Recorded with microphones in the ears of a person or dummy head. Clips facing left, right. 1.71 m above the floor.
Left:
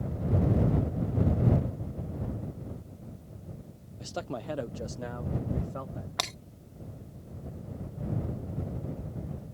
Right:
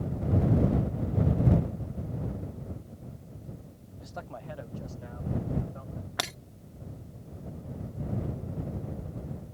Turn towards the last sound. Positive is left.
turn(degrees=-10)  # may be behind; listen again after turning